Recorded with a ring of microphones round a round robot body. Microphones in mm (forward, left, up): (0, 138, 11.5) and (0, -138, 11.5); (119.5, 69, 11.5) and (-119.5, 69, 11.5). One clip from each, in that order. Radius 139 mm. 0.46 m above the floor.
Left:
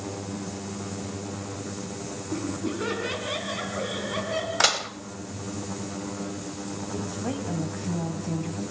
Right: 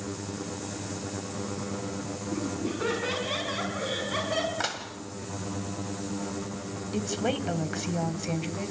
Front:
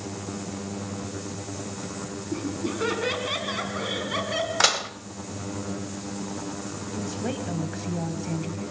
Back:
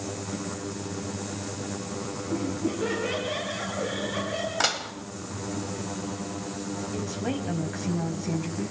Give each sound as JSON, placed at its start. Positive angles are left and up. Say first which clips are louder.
{"t": 2.3, "sound": "laughter", "louder": "left 2 dB, back 1 dB", "azimuth_deg": 5, "distance_m": 5.0}
{"t": 4.6, "sound": "dishes clattering", "louder": "left 9 dB, front 5 dB", "azimuth_deg": 50, "distance_m": 1.6}
{"t": 6.9, "sound": "a woman speaking", "louder": "right 5 dB, front 1 dB", "azimuth_deg": -90, "distance_m": 3.0}